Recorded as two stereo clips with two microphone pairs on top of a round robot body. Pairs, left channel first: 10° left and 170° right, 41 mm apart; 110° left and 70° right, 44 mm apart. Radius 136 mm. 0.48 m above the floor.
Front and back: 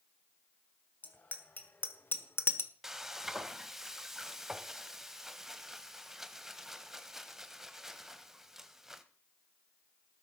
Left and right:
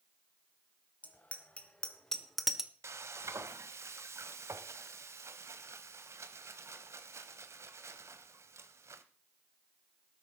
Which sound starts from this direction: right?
Frying, at 2.8 s.